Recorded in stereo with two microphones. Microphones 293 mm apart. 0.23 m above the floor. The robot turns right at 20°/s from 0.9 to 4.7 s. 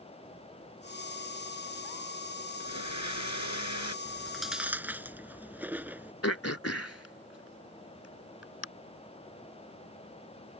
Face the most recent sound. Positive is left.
turn(degrees=55)  # may be behind; listen again after turning